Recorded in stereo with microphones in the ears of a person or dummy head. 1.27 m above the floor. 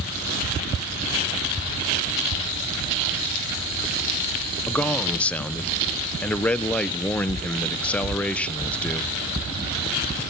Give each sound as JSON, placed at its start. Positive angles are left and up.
{"t": 4.7, "sound": "a man speaking", "side_deg": 10, "distance_m": 0.5}